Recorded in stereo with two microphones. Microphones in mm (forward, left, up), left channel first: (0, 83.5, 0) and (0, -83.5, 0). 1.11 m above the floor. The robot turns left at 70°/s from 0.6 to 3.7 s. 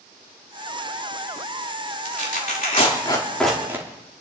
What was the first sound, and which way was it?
Tearing paper, 75° left (ahead or behind).